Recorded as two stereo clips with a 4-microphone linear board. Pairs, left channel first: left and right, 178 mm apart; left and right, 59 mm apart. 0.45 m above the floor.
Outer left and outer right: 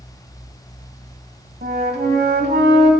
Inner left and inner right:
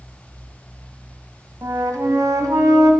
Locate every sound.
1.6 s a flute: 65° right (ahead or behind), 1.2 m